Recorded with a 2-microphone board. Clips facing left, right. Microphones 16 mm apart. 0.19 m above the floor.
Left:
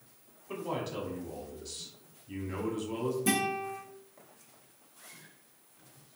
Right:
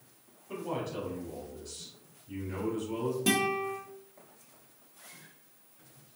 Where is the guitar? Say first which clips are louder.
Right 4 dB; 55° right (ahead or behind), 1.2 m.